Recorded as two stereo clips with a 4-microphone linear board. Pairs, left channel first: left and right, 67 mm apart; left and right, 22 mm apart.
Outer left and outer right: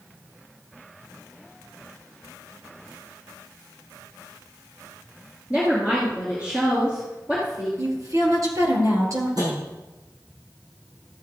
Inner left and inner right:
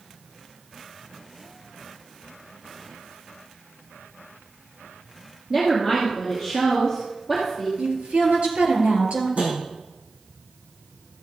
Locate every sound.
5.5 s a woman speaking: 15° right (ahead or behind), 2.5 m
7.8 s a woman speaking: 55° right (ahead or behind), 3 m
9.4 s tapping: 70° right (ahead or behind), 5 m